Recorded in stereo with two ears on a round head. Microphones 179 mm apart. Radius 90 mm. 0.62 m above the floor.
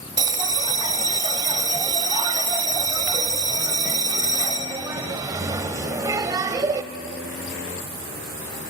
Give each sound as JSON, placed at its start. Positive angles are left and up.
{"t": 0.2, "sound": "a bell", "side_deg": -15, "distance_m": 0.7}